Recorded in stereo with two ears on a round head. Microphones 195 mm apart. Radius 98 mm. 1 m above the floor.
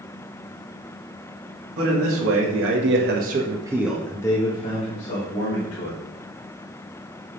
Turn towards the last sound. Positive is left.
turn(degrees=45)  # may be behind; listen again after turning